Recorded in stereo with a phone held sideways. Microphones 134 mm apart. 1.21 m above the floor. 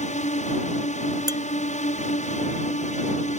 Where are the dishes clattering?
30° right (ahead or behind).